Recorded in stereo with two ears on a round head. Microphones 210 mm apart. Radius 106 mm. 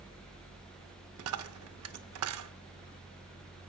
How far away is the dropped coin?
About 0.6 m.